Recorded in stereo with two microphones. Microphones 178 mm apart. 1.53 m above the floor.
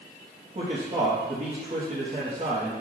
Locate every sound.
0.6 s a man speaking: 45° right (ahead or behind), 1.3 m